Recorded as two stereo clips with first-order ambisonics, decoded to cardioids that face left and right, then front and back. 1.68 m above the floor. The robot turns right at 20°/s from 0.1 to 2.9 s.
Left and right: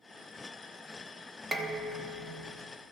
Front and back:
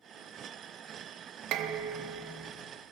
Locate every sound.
1.5 s dishes clattering: 160° right, 1.2 m; by 2.5 s 140° right, 1.2 m